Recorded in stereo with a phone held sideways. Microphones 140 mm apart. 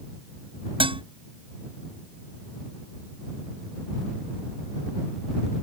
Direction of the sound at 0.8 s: 40° right (ahead or behind).